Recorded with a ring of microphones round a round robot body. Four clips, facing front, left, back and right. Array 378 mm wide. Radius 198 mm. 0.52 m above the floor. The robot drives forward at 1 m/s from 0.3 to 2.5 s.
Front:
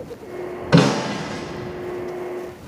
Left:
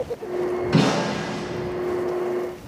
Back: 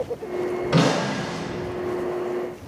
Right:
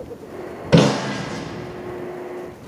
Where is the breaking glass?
65° right, 1.1 m; by 1.4 s 105° right, 1.0 m.